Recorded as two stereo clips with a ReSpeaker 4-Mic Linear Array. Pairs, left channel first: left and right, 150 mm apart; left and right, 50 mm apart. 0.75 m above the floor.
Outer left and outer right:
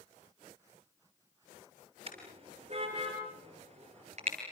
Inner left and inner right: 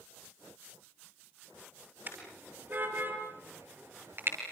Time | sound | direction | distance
2.1 | a car horn | 40° right (ahead or behind) | 8 m